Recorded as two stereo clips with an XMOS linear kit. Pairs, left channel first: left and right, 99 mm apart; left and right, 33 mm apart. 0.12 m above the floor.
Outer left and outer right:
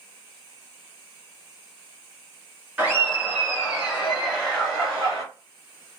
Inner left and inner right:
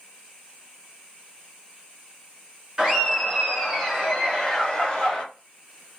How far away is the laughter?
About 1.6 m.